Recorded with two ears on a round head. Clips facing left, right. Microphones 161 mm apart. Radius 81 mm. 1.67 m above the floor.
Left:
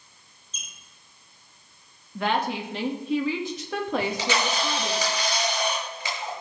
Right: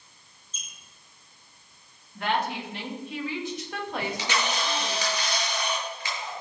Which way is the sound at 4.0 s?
75° left (ahead or behind).